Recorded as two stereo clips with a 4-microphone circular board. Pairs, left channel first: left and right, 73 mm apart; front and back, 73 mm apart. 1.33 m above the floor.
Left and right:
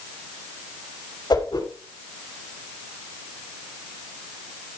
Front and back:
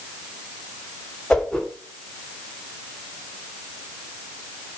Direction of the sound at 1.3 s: 85° left.